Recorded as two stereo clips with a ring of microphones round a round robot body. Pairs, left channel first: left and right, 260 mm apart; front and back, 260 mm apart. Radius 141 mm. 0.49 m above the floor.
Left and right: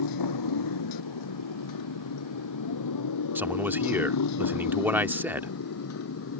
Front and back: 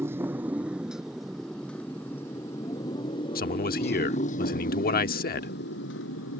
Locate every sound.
0.0 s a motorcycle: 100° left; by 6.4 s 50° left
3.4 s a man speaking: 15° right